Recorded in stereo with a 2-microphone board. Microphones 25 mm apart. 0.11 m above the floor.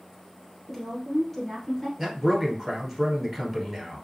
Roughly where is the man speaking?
Centre.